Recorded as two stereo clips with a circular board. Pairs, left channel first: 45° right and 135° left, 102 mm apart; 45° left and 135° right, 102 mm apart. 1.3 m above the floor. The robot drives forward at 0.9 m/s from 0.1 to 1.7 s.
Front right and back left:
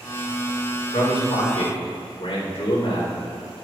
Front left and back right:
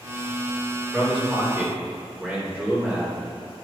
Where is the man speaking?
55° right, 4 m; by 3.6 s 60° right, 3.5 m.